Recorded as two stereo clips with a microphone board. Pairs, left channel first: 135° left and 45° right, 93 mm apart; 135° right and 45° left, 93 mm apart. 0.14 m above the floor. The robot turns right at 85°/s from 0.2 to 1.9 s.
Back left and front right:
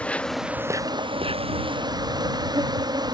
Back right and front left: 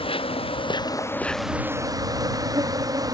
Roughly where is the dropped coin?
I don't hear a dropped coin.